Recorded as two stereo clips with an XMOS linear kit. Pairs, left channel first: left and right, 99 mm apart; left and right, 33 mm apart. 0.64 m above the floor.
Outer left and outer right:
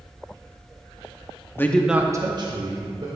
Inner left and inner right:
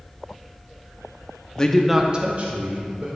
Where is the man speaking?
25° left (ahead or behind), 0.8 m; by 3.1 s 50° right (ahead or behind), 1.7 m.